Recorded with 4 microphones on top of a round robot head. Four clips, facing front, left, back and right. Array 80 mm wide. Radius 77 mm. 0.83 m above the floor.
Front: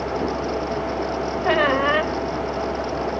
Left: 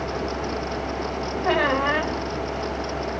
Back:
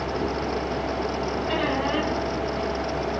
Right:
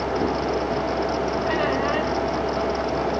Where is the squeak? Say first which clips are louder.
Left 5 dB, front 9 dB; 15° left, 2.5 m.